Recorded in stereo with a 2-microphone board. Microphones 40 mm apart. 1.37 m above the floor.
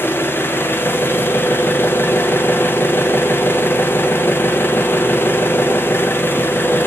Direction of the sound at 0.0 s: 65° left (ahead or behind).